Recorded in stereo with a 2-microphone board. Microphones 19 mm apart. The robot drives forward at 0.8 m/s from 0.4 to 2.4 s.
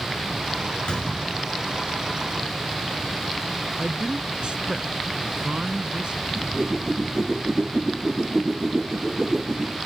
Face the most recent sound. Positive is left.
turn(degrees=-25)  # may be behind; listen again after turning